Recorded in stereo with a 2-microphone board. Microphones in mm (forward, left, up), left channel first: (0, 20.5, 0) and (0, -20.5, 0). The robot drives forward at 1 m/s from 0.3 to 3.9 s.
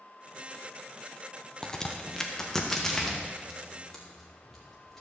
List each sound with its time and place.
1.6 s a crack: 15° left (ahead or behind), 0.9 m; by 5.0 s 5° left (ahead or behind), 3 m